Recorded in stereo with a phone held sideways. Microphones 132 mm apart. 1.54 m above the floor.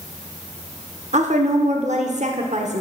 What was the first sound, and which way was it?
A woman speaking, 60° right (ahead or behind).